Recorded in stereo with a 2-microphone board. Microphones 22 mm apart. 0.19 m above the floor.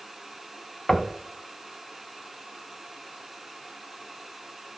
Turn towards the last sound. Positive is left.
turn(degrees=30)  # may be behind; listen again after turning